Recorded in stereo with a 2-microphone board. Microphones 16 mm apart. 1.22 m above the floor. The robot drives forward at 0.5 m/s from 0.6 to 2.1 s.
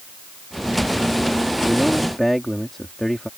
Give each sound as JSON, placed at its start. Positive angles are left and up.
{"t": 1.6, "sound": "a man speaking", "side_deg": 35}